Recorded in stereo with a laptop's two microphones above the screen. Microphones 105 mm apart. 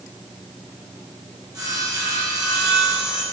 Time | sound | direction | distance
1.5 | sawing | 35° right (ahead or behind) | 1.6 m